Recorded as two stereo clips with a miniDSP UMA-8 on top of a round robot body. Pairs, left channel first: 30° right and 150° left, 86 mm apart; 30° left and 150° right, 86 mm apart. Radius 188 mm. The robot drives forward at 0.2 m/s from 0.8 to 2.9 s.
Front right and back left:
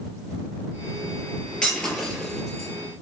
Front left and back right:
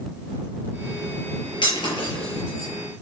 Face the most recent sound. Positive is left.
turn(degrees=55)